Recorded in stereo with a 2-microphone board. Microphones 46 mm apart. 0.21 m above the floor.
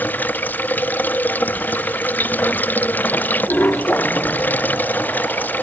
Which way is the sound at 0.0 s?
40° left (ahead or behind).